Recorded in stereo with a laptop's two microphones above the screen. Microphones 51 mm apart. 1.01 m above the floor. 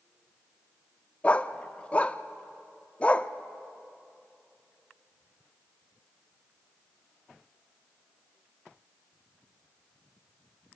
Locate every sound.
1.2 s a dog barking: 25° left (ahead or behind), 0.5 m